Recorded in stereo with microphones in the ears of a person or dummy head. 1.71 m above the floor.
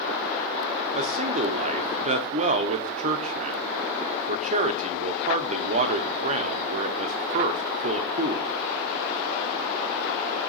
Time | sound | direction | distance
0.9 | a man speaking | 40° right (ahead or behind) | 1.0 m